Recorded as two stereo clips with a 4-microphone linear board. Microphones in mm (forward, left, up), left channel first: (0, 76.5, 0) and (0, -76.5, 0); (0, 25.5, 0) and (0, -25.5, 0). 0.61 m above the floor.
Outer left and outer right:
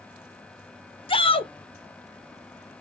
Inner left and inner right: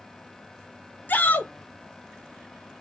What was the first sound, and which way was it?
A shout, 35° left (ahead or behind).